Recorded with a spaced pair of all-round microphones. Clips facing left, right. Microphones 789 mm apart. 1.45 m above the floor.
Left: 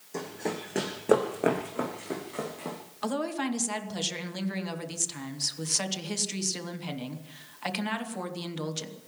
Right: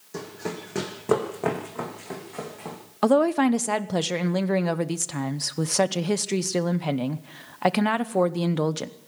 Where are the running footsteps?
45° right (ahead or behind), 3.5 m; by 2.8 s 25° right (ahead or behind), 6 m.